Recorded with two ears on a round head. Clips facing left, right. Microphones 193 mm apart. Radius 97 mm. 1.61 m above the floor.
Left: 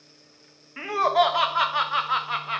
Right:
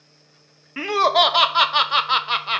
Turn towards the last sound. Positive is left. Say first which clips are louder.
# right 3 dB
turn(degrees=-55)  # may be behind; listen again after turning